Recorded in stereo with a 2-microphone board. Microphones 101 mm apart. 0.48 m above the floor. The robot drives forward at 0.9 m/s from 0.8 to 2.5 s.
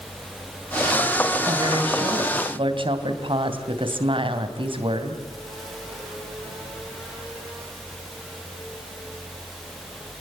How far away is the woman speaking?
About 4 m.